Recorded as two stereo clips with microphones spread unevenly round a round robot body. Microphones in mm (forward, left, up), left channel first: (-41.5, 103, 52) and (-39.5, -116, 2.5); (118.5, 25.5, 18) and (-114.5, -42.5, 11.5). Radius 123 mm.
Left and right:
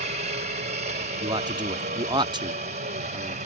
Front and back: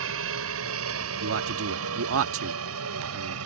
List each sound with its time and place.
0.0 s a helicopter: 140° right
1.2 s a man speaking: 150° right